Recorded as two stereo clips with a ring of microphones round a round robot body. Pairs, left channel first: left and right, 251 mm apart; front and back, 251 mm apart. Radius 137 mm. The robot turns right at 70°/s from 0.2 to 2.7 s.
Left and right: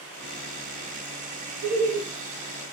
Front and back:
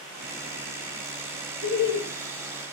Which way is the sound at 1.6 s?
55° right.